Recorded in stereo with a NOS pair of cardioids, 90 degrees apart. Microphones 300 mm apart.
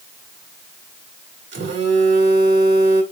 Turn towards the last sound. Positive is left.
turn(degrees=-50)